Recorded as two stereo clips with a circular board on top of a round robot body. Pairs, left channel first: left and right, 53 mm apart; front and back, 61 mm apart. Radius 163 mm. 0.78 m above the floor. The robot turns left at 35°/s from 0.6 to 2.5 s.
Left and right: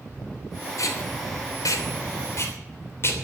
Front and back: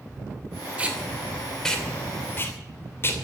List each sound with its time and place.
0.8 s tape being pulled: 110° left, 3 m; by 3.2 s 50° left, 3 m